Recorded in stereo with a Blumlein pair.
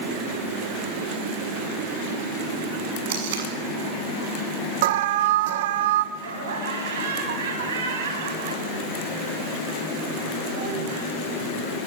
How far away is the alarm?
About 2.0 m.